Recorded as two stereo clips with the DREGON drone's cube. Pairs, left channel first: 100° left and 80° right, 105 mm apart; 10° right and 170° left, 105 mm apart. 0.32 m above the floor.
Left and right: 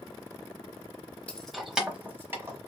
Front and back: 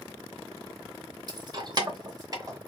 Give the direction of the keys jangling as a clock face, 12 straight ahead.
6 o'clock.